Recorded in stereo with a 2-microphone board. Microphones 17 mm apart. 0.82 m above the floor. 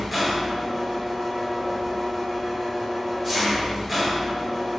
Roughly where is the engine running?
Centre.